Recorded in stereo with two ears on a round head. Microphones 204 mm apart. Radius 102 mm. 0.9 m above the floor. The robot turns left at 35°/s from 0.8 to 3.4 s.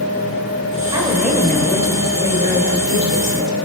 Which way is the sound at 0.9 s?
160° right.